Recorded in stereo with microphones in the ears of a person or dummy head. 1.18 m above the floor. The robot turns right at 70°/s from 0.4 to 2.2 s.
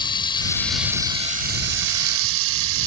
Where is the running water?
155° left; by 2.9 s 80° right.